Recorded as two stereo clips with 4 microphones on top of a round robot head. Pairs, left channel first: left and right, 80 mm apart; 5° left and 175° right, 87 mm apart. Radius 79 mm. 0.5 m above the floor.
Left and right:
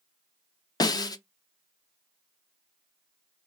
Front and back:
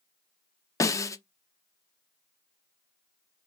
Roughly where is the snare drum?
Ahead left.